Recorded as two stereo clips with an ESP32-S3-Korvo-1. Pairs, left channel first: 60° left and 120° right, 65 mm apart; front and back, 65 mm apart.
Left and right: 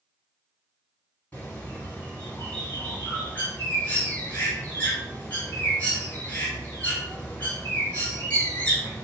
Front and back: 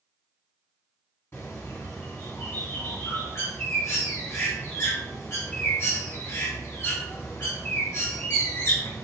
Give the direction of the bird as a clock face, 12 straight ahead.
12 o'clock.